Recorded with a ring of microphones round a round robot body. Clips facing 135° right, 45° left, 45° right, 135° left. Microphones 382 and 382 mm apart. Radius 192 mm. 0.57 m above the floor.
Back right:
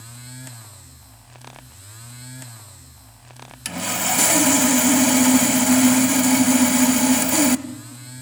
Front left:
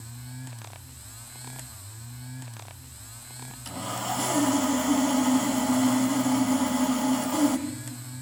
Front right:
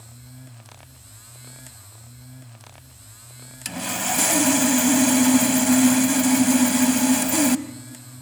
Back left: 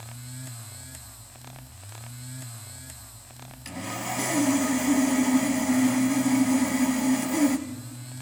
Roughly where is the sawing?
Right.